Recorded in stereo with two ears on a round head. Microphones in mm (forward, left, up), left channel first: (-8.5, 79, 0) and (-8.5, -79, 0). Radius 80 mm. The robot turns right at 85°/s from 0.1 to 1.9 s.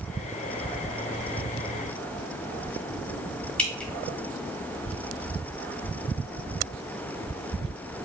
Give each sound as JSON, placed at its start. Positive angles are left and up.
{"t": 3.6, "sound": "dripping", "side_deg": 5, "distance_m": 1.4}